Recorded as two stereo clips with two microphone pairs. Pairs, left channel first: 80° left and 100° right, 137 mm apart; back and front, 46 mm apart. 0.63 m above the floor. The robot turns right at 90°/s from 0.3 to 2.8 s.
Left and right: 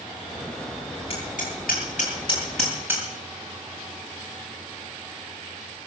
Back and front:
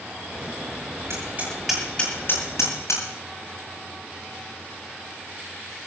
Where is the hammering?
30° left, 10 m; by 3.0 s straight behind, 10 m.